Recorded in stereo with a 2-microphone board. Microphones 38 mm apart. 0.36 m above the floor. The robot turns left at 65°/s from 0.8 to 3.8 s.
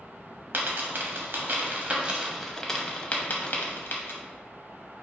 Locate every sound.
0.5 s a dropped coin: 55° right (ahead or behind), 0.9 m; by 4.2 s 65° left (ahead or behind), 0.9 m